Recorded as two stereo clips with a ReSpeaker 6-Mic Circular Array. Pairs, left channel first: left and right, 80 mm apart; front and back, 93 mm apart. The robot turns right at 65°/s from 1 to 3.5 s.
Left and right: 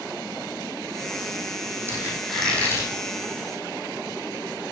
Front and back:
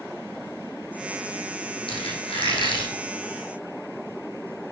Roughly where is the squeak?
Ahead right.